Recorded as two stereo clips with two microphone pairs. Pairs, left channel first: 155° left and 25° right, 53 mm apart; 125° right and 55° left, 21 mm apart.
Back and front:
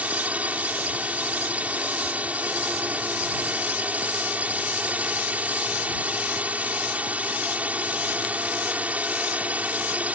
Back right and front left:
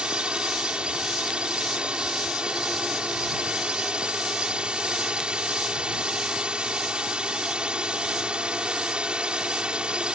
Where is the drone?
35° left.